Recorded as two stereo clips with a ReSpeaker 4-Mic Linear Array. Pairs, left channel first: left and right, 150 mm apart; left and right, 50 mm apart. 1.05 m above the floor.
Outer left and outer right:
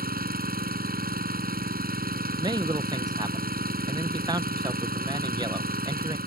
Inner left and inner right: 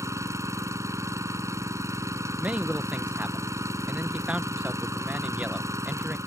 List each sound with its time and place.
0.0 s an engine running: 80° right
2.4 s a man speaking: 25° right (ahead or behind)